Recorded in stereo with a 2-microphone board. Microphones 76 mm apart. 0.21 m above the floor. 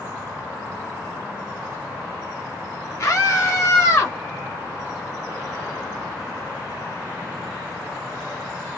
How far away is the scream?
About 1.5 m.